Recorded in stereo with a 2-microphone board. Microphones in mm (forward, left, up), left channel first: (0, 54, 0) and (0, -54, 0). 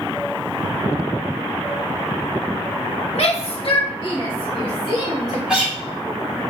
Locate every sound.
3.1 s a shout: 80° left, 1.3 m; by 5.4 s centre (ahead or behind), 3 m
5.5 s a guitar: 10° right (ahead or behind), 2.5 m